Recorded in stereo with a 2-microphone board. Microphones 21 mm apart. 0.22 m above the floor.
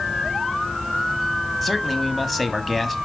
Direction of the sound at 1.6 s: 5° left (ahead or behind).